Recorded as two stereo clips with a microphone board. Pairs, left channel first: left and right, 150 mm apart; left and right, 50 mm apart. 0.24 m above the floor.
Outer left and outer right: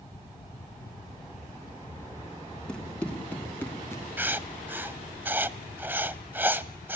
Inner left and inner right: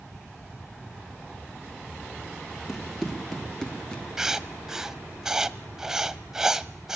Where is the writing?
10° right (ahead or behind), 0.7 m.